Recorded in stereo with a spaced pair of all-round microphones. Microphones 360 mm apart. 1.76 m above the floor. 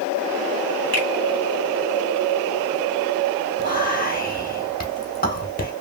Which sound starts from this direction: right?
A finger snap, at 0.9 s.